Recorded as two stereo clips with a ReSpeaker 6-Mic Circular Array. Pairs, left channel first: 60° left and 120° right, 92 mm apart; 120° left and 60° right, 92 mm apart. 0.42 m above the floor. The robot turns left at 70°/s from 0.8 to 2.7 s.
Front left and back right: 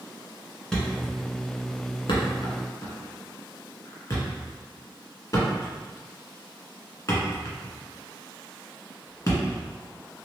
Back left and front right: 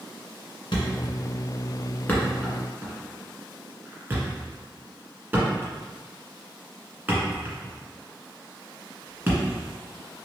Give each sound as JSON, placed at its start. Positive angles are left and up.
{"t": 0.7, "sound": "a thud", "azimuth_deg": 140, "distance_m": 1.2}